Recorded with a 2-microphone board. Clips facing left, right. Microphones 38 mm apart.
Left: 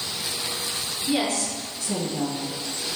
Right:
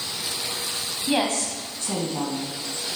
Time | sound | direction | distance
1.1 | a woman speaking | 45° right (ahead or behind) | 2 m